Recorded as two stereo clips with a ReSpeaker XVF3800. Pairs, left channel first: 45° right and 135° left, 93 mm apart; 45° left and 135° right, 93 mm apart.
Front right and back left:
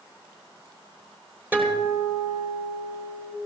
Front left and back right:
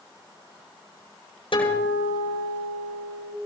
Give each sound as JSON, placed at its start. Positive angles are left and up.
{"t": 1.5, "sound": "a guitar", "azimuth_deg": 65, "distance_m": 9.5}